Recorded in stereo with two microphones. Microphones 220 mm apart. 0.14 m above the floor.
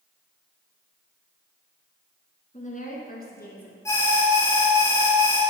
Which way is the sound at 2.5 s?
35° left (ahead or behind).